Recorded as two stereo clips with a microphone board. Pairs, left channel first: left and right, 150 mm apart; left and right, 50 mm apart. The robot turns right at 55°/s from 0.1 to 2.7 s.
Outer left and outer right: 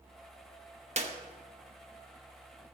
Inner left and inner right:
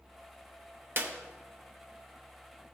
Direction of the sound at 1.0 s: 45° right (ahead or behind).